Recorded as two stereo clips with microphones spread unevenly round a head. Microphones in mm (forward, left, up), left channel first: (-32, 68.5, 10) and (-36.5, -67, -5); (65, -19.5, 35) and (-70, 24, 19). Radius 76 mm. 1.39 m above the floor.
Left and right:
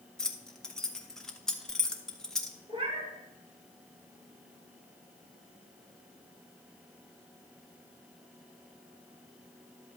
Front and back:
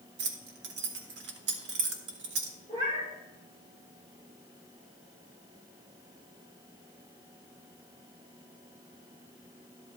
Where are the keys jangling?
175° left, 1.1 m.